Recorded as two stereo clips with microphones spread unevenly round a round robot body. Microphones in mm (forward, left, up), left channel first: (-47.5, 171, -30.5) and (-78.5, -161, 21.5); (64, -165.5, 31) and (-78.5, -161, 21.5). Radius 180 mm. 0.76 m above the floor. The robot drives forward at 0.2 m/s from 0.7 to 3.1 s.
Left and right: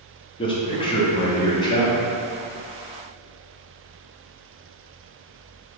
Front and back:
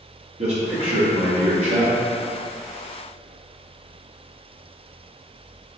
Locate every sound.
0.4 s a man speaking: 150° left, 1.3 m; by 1.9 s 155° left, 1.4 m